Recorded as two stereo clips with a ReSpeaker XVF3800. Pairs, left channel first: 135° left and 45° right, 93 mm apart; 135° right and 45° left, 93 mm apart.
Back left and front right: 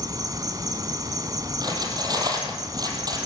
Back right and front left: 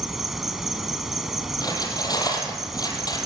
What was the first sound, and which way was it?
An insect, 40° right.